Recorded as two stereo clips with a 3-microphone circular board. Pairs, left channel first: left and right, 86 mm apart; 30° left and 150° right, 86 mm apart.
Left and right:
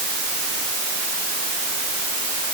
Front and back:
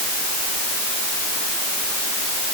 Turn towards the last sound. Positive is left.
No sound to turn to.